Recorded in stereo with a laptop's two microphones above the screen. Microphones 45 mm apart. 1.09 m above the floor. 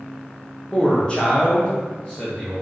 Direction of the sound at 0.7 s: 20° left (ahead or behind).